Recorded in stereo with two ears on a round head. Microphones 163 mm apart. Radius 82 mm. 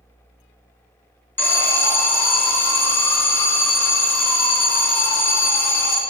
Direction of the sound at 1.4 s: 15° left (ahead or behind).